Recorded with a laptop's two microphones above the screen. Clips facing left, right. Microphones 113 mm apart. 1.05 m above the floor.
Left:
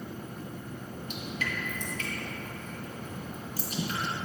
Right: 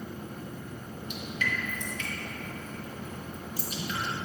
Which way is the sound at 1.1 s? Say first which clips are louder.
Right 2 dB; 40° left (ahead or behind).